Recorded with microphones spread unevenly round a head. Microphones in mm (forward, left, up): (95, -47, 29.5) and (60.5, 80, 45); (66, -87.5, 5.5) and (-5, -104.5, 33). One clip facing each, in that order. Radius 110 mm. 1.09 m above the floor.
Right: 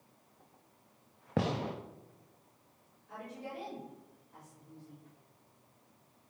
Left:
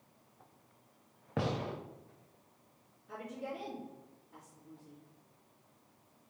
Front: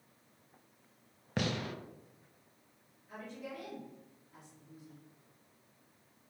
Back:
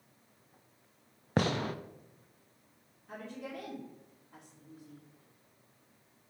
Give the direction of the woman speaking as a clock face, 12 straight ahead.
7 o'clock.